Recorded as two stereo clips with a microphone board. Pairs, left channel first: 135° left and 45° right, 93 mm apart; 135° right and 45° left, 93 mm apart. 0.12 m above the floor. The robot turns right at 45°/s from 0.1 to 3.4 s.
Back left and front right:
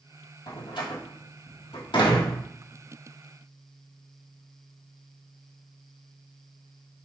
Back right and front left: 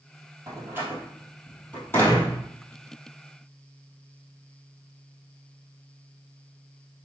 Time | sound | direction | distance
0.5 | a door slam | 95° left | 2.5 m